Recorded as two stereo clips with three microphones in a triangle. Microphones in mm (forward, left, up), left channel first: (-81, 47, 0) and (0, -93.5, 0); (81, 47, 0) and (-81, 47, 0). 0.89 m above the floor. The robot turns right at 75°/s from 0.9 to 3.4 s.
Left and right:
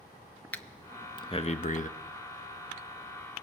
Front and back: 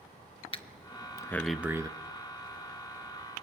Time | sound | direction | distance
0.5 | breathing | 45° left | 0.8 m